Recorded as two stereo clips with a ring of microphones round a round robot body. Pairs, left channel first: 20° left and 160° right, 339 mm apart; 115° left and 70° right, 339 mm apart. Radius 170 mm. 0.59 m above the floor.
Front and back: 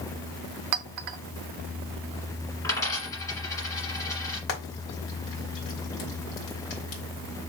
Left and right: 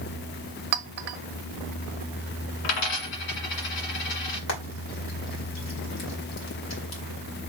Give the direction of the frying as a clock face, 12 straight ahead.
10 o'clock.